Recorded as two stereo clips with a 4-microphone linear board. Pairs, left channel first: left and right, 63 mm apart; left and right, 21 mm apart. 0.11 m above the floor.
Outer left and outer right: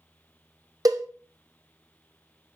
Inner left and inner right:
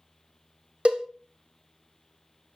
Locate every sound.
0.8 s a cowbell: 85° right, 0.7 m